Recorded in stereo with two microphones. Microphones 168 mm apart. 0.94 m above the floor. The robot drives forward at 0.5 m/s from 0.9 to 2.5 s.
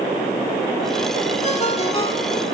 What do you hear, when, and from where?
1.4 s a ringtone: 40° left (ahead or behind), 1.5 m; by 2.4 s 30° left (ahead or behind), 1.9 m